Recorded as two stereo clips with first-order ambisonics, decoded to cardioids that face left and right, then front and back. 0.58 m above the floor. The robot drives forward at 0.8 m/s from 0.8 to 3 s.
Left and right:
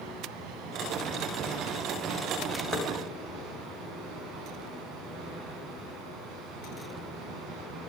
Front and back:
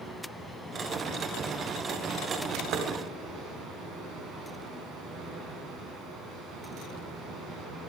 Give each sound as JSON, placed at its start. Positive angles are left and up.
{"t": 0.0, "sound": "running water", "azimuth_deg": -95, "distance_m": 3.5}
{"t": 2.7, "sound": "knocking", "azimuth_deg": 165, "distance_m": 3.0}